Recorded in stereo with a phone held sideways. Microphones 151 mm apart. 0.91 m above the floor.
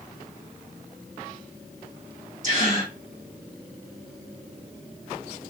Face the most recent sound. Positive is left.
turn(degrees=-55)  # may be behind; listen again after turning